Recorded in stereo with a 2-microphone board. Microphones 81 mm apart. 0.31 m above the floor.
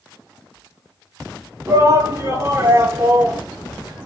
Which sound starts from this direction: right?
A shout, at 1.7 s.